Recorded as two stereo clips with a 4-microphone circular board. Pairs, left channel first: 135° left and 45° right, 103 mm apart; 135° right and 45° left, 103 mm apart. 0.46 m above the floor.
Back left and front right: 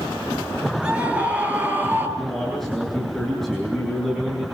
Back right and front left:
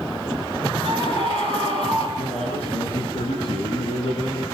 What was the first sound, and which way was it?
A scream, 125° right.